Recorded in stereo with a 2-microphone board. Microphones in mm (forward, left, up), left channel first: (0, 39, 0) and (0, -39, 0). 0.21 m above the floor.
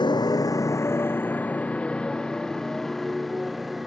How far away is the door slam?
I don't hear a door slam.